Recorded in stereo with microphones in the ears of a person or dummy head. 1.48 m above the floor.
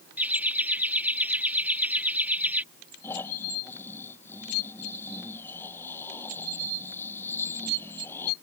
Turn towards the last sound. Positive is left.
turn(degrees=15)  # may be behind; listen again after turning